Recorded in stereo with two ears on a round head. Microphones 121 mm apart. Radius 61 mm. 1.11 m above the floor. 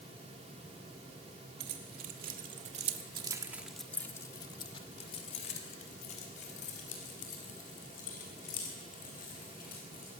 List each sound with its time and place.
1.6 s keys jangling: 75° right (ahead or behind), 3 m; by 10.1 s 65° left (ahead or behind), 9 m